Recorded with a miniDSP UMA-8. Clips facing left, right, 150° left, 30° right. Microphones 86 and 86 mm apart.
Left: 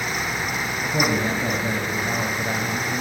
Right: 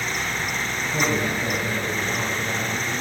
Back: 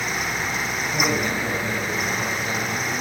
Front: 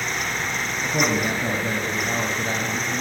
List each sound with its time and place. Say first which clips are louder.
0.8 s a man speaking: left 2 dB, front 2 dB; 20° left, 3 m